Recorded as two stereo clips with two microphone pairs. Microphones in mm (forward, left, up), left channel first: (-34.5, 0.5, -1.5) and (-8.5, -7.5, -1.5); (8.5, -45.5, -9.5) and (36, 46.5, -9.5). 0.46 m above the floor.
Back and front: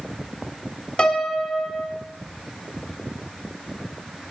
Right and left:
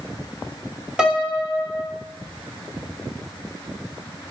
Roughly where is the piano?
Behind left.